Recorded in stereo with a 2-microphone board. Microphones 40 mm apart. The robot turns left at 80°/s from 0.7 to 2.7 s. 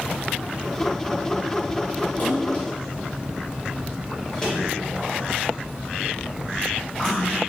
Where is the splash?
50° left (ahead or behind), 2.0 m; by 7.4 s 15° left (ahead or behind), 2.0 m.